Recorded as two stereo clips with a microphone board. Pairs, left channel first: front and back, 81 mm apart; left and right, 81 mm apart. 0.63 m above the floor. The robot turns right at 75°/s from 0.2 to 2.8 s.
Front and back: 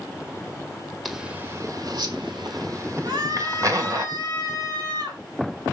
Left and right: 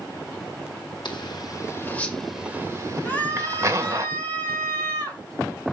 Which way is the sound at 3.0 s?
160° left.